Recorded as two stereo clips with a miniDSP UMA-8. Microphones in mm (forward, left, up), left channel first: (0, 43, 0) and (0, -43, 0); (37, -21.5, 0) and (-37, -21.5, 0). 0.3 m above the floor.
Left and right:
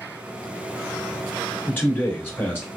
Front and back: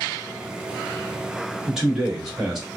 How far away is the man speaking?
About 1.4 m.